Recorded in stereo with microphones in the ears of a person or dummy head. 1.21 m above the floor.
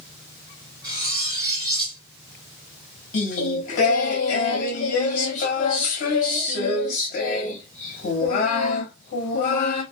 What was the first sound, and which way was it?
Cutlery clinking, 20° right (ahead or behind).